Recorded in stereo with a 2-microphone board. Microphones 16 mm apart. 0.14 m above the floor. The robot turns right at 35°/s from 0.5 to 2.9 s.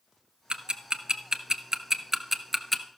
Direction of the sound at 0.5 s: 60° right (ahead or behind).